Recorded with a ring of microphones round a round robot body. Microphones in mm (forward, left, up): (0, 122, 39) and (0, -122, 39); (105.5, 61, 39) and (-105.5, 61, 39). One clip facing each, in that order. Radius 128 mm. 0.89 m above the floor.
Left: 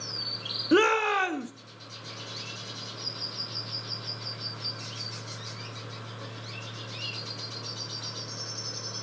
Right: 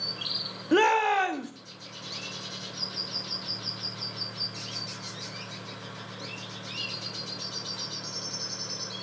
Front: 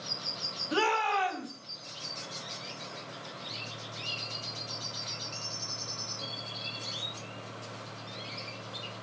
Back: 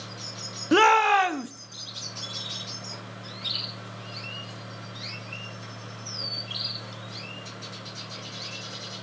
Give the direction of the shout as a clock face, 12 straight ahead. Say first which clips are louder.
Left 1 dB, back 9 dB; 6 o'clock.